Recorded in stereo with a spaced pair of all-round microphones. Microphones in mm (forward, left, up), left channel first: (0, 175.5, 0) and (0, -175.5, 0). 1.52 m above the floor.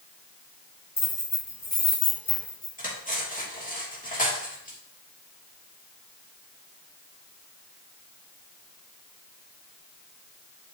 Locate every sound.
1.0 s keys jangling: 65° left (ahead or behind), 4 m
2.8 s cutlery clinking: 20° left (ahead or behind), 2 m